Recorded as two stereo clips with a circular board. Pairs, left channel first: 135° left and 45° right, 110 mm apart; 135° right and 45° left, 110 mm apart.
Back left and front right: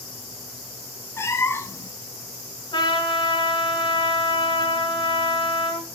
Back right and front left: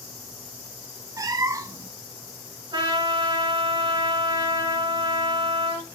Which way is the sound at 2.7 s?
90° left.